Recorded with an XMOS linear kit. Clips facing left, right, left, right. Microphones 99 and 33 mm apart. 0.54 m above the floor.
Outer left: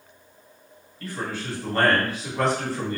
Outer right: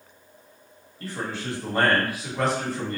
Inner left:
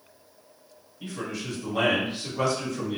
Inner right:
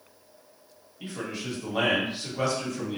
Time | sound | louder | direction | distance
1.0 | a man speaking | even, inner left 1 dB | 35° right (ahead or behind) | 1.3 m